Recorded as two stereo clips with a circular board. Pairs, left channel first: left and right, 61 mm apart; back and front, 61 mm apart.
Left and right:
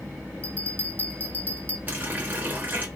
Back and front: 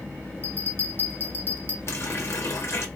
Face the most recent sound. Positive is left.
turn(degrees=-145)